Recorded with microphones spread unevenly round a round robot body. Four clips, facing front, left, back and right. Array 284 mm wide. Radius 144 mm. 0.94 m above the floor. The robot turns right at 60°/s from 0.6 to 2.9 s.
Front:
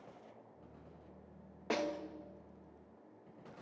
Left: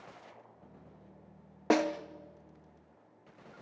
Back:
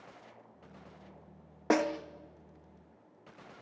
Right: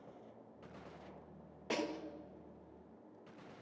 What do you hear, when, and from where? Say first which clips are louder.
1.7 s a snare drum: left 11 dB, back 8 dB; 130° left, 0.8 m; by 2.0 s 150° left, 0.8 m